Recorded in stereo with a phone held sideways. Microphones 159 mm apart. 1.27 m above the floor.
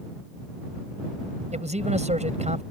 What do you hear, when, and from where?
1.5 s a man speaking: 45° right (ahead or behind)